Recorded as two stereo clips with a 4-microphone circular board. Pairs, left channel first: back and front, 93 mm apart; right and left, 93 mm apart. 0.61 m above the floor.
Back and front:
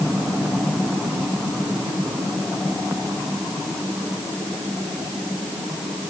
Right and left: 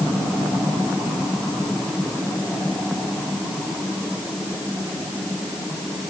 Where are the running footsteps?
I don't hear running footsteps.